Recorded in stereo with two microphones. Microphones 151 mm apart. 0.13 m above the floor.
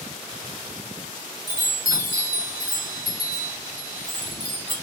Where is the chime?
30° right (ahead or behind), 1.9 m.